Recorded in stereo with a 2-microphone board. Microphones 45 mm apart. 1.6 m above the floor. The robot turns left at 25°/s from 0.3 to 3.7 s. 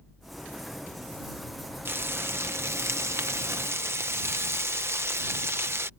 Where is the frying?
60° right; by 5.9 s 105° right.